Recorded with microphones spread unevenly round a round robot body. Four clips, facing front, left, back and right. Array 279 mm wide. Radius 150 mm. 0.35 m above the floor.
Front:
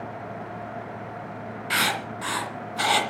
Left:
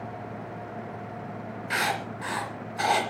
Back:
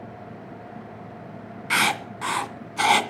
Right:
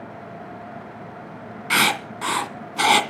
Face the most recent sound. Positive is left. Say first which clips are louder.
# right 6 dB, back 3 dB
turn(degrees=-110)